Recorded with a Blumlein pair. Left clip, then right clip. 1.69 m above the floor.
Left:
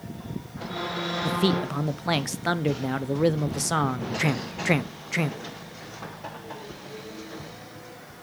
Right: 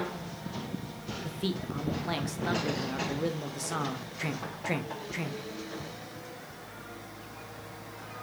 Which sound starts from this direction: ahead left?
A man speaking, at 1.2 s.